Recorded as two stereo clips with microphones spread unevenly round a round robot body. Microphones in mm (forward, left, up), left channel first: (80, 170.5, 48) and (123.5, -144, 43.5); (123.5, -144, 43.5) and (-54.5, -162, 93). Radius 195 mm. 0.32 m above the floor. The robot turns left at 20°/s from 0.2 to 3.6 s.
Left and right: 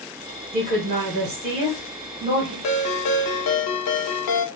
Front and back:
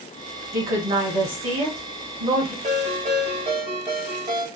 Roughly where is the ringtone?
Behind left.